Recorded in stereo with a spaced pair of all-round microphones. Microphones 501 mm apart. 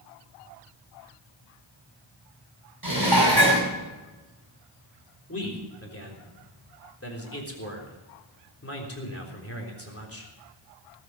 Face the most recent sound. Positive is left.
turn(degrees=25)  # may be behind; listen again after turning